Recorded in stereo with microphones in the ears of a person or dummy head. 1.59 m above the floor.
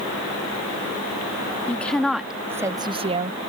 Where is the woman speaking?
10° left (ahead or behind); by 3.4 s 45° right (ahead or behind).